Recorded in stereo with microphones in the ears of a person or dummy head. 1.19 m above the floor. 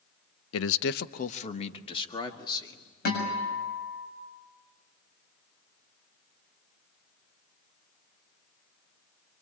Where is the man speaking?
80° left, 0.7 m; by 2.9 s 20° left (ahead or behind), 3 m.